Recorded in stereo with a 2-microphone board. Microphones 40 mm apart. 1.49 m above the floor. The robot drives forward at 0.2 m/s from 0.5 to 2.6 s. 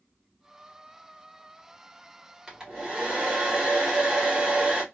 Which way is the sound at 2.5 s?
20° right (ahead or behind).